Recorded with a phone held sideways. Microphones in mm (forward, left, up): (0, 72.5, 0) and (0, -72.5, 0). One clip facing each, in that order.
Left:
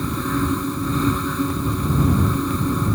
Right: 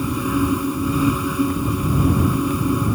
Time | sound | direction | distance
0.0 | a fan | 10° right (ahead or behind) | ?